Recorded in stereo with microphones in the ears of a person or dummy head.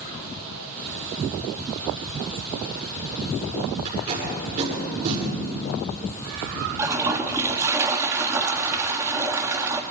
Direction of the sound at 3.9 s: 45° right (ahead or behind).